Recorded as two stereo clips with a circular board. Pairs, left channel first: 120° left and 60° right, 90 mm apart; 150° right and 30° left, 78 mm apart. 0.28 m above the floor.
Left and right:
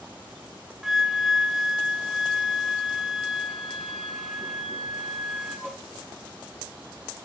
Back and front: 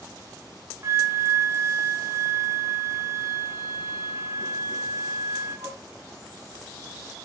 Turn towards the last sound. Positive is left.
turn(degrees=25)